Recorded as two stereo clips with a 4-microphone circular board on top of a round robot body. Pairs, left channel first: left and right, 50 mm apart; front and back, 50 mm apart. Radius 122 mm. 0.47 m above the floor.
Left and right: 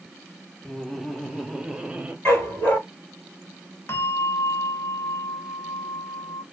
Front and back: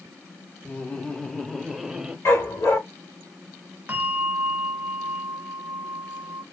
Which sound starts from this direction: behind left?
A bell, at 3.9 s.